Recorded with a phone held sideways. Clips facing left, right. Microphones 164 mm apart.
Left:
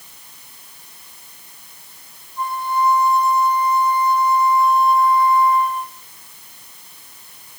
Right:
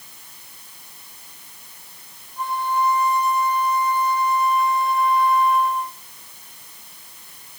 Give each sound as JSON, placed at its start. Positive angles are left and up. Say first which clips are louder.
{"t": 2.4, "sound": "a flute", "louder": "left 2 dB", "side_deg": -75, "distance_m": 4.5}